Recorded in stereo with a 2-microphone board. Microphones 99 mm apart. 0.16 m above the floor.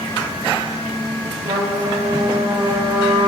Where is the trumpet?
55° right (ahead or behind), 7 m.